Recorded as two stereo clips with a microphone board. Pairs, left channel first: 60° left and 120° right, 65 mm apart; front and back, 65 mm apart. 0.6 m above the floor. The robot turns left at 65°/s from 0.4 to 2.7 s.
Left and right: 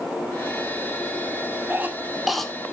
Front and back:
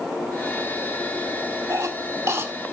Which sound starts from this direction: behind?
A cough, at 1.7 s.